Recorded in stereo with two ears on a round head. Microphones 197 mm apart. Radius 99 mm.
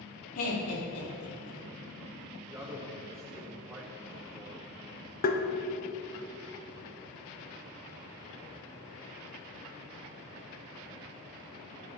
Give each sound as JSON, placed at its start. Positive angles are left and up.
{"t": 0.3, "sound": "laughter", "side_deg": 70, "distance_m": 3.5}
{"t": 2.5, "sound": "a man speaking", "side_deg": -10, "distance_m": 1.0}
{"t": 5.2, "sound": "tapping", "side_deg": 45, "distance_m": 0.8}